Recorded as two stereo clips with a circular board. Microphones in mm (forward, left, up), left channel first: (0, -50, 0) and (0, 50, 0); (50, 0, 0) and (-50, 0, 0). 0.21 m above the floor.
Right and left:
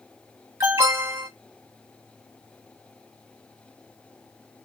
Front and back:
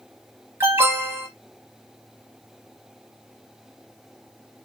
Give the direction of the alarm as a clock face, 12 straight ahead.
7 o'clock.